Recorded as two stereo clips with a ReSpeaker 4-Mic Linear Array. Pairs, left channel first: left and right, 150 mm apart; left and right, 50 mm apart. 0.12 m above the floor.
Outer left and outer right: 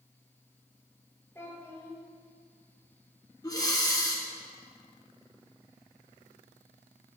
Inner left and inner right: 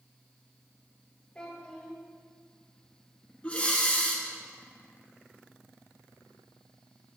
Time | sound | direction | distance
1.4 | a child speaking | 15° left (ahead or behind) | 2 m
3.4 | breathing | 25° left (ahead or behind) | 1.2 m